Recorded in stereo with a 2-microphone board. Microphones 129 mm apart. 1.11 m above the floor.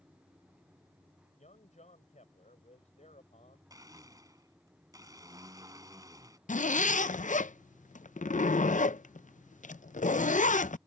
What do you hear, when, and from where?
1.4 s a man speaking: 65° left (ahead or behind)
3.7 s a blender: 30° right (ahead or behind)
6.5 s a zipper: 75° left (ahead or behind)